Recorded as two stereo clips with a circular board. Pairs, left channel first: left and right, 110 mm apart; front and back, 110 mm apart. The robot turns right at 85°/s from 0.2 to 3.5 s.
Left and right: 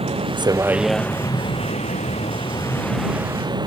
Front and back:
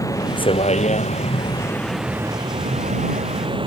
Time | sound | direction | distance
0.0 | a vehicle | 60° right | ?